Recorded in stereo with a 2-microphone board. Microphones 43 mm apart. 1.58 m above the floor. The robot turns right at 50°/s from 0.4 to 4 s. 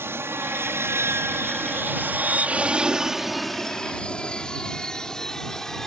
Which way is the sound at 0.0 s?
65° right (ahead or behind).